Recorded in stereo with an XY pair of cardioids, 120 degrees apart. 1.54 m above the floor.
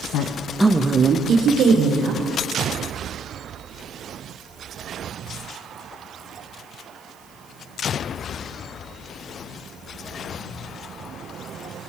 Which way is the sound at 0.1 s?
70° left.